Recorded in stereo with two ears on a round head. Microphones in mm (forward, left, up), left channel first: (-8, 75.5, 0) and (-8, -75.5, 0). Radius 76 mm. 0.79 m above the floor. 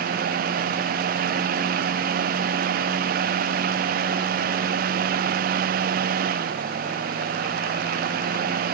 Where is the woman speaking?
I don't hear a woman speaking.